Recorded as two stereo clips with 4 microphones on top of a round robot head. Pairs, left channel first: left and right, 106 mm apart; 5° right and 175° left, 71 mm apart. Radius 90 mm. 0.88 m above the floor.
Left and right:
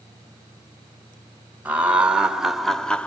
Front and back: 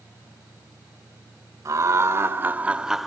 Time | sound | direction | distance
1.6 | laughter | 165° right | 1.0 m